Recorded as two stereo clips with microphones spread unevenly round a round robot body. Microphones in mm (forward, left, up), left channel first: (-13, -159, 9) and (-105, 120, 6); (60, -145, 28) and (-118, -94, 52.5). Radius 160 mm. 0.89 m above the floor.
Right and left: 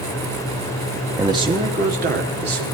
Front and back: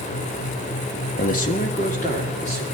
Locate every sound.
1.2 s a man speaking: 25° left, 1.0 m; by 2.6 s 50° left, 3 m